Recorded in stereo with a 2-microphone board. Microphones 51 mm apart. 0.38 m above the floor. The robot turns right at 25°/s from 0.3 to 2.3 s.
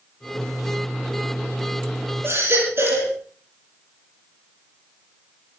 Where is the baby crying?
50° right (ahead or behind), 8 m.